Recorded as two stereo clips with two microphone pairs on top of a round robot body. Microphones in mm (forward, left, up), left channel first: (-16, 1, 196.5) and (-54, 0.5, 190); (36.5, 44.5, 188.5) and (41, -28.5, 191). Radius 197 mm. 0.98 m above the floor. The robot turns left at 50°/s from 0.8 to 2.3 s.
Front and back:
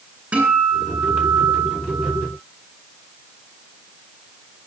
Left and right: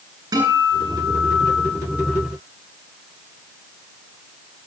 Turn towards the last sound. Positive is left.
turn(degrees=160)